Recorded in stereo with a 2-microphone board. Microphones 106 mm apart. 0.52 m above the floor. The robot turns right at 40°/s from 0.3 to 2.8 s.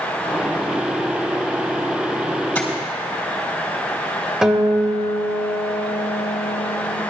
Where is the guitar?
5° right (ahead or behind), 1.5 m.